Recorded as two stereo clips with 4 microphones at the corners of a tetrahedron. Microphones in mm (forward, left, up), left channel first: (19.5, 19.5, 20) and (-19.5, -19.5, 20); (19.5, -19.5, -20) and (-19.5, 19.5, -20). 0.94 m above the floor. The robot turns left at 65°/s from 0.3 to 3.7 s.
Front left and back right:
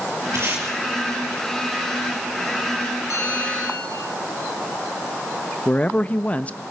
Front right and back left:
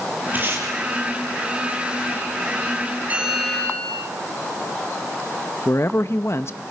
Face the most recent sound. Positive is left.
turn(degrees=-15)